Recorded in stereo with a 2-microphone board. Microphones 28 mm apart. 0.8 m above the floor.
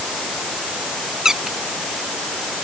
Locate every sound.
1.2 s a squeak: 20° right (ahead or behind)